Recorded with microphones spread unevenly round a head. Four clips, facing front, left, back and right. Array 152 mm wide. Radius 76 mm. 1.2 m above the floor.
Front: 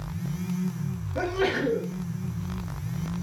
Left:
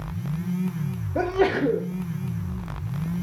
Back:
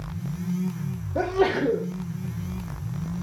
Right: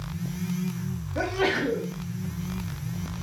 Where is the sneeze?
120° left, 1.0 m.